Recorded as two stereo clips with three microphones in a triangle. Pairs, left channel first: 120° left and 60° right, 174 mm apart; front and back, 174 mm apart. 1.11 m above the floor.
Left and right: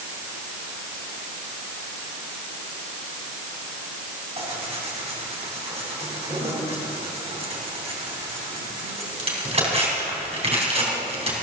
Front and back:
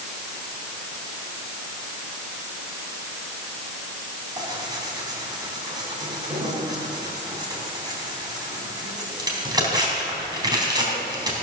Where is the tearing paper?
115° right, 3.5 m.